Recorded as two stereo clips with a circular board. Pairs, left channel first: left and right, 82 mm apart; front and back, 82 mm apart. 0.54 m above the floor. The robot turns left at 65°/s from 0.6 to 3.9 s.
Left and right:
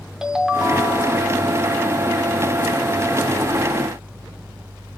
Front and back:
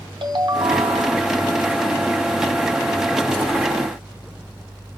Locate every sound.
0.2 s a ringtone: 170° right, 0.6 m; by 1.3 s 145° left, 0.6 m